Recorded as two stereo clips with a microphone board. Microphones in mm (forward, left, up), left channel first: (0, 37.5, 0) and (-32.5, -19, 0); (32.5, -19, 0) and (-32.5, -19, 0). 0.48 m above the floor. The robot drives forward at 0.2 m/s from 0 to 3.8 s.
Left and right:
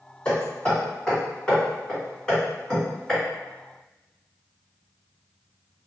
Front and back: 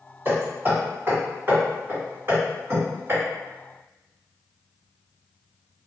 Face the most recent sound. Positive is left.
turn(degrees=145)